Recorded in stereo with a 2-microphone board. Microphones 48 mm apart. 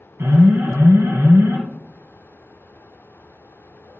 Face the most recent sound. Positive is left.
turn(degrees=-70)  # may be behind; listen again after turning